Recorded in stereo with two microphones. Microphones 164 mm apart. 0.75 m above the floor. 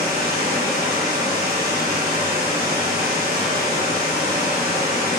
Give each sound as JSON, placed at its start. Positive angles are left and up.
{"t": 0.0, "sound": "running water", "side_deg": -70, "distance_m": 1.0}